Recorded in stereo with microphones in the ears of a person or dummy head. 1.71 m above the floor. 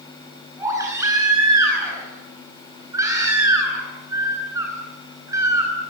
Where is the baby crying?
20° right (ahead or behind), 10 m.